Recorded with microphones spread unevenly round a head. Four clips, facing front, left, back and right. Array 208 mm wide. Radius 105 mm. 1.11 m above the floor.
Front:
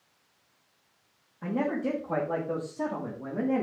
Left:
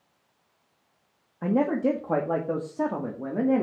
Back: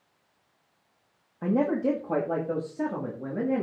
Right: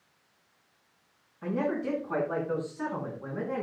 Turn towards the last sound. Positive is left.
turn(degrees=90)